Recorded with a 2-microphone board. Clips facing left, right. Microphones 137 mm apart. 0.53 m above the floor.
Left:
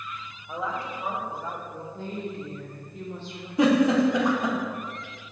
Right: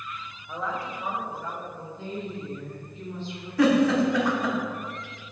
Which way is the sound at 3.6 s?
20° left (ahead or behind).